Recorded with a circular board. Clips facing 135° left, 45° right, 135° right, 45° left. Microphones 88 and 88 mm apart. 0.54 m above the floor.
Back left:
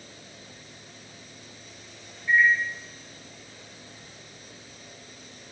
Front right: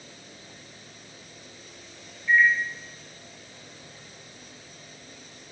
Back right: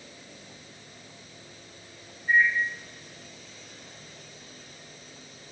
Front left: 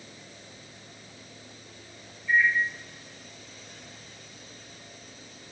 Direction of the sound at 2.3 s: 155° right.